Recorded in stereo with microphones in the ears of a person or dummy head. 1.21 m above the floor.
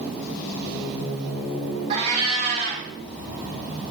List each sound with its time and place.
1.9 s a cat meowing: 35° right (ahead or behind), 0.9 m